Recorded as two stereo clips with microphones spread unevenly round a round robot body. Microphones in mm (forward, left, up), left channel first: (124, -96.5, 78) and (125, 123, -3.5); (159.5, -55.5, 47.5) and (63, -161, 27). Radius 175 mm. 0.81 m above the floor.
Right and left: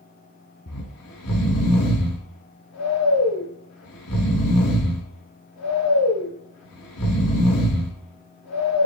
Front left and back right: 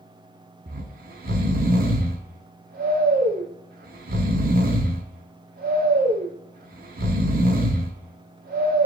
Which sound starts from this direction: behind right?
Snoring, at 0.7 s.